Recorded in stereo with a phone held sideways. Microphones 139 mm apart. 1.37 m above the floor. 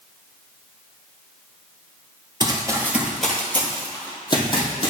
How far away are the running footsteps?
About 1.8 m.